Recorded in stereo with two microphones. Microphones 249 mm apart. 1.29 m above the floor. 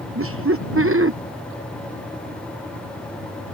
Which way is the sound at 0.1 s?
65° right (ahead or behind).